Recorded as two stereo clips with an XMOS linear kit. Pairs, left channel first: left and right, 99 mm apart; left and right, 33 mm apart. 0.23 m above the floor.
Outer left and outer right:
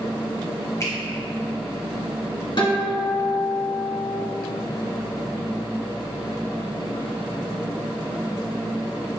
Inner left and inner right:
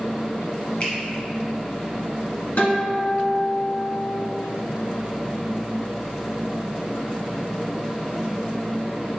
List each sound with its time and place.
0.8 s a finger snap: 35° left (ahead or behind), 1.5 m
2.6 s a guitar: 55° left (ahead or behind), 1.8 m